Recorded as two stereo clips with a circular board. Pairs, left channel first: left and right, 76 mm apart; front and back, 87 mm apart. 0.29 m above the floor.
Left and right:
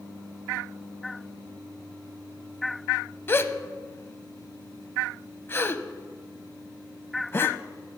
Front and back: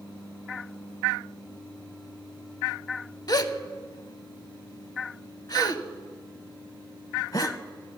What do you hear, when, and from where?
3.3 s a gasp: 35° left, 0.5 m